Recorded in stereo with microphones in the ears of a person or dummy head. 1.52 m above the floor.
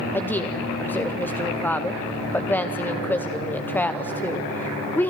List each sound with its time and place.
0.1 s a woman speaking: 15° left (ahead or behind), 0.7 m